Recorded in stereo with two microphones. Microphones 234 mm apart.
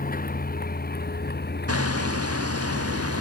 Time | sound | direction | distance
0.0 | a vehicle | 40° left (ahead or behind) | ?
1.7 | hammering | 80° right | ?